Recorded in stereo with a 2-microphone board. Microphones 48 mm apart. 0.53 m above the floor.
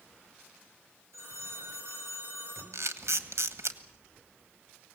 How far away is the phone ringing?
About 5 m.